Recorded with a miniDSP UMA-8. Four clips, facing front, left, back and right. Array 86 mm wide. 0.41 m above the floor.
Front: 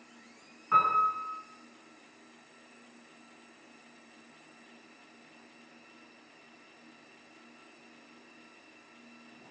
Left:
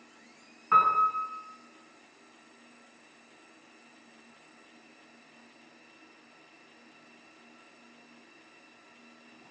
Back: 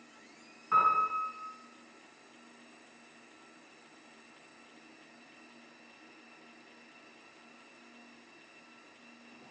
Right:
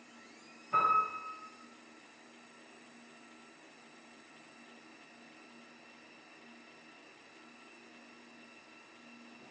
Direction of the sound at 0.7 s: 85° left.